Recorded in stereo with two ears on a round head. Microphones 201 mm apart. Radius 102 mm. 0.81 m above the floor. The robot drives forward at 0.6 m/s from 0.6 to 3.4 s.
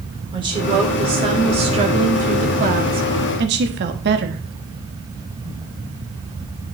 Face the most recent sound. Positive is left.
turn(degrees=-45)  # may be behind; listen again after turning